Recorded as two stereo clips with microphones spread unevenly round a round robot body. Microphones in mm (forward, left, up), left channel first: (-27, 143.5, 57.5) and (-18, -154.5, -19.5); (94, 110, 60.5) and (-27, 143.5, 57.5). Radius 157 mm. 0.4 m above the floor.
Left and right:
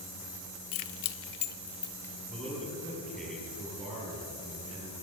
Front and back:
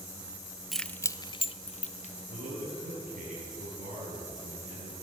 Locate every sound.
0.7 s keys jangling: 75° left, 1.0 m; by 2.1 s straight ahead, 1.4 m
2.3 s a man speaking: straight behind, 8.5 m